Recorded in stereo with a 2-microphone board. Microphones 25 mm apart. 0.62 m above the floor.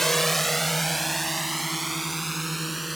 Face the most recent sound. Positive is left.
turn(degrees=-5)  # may be behind; listen again after turning